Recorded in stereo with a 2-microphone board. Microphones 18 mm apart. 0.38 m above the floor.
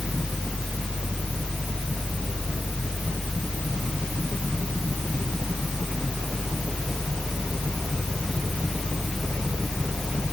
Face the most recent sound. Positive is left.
No sound to turn to.